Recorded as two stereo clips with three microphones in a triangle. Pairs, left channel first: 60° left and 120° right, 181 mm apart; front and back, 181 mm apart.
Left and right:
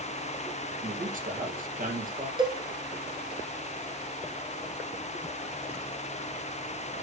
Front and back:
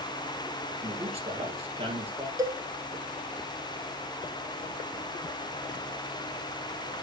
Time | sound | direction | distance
0.8 | a man speaking | 135° right | 2.5 m
2.4 | a cowbell | 140° right | 1.5 m